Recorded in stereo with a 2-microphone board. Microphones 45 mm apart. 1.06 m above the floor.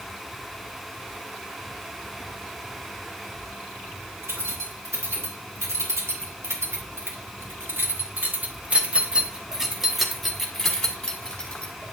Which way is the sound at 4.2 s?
85° right.